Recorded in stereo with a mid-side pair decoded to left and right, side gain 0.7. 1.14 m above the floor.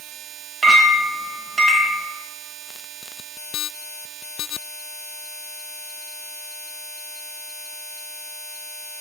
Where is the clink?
20° right, 0.9 m.